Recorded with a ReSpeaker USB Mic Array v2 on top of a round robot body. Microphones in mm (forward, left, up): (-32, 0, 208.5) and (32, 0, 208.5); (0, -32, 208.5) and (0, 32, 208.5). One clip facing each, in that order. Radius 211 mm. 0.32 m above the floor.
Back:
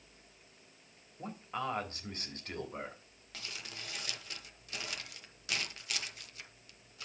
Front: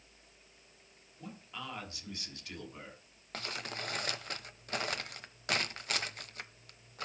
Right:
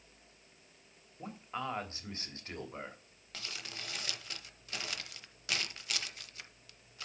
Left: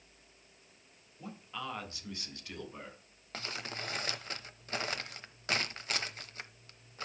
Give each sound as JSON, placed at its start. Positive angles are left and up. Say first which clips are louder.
{"t": 1.2, "sound": "a man speaking", "louder": "back 7 dB, right 2 dB", "azimuth_deg": -140, "distance_m": 3.5}
{"t": 3.3, "sound": "crumpling", "louder": "front 6 dB, left 5 dB", "azimuth_deg": 40, "distance_m": 1.0}